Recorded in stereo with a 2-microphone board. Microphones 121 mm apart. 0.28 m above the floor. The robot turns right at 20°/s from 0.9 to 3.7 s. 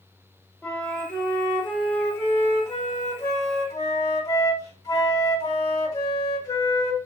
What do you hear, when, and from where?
0.6 s a flute: 10° left (ahead or behind), 1.5 m; by 7.0 s 30° left (ahead or behind), 1.5 m